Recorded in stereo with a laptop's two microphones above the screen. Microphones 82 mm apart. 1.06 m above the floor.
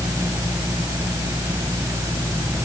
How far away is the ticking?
I don't hear ticking.